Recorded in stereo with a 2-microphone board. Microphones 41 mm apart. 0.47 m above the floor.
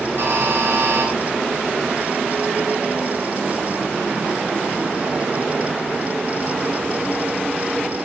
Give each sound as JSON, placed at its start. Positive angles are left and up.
{"t": 0.2, "sound": "a buzzer", "side_deg": -60, "distance_m": 8.5}